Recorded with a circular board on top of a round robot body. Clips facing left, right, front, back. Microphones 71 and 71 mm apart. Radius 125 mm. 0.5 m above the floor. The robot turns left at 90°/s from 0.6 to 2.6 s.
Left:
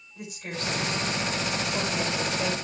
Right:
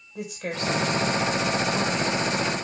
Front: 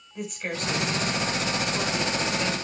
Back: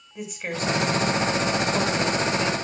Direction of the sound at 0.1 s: 90° right.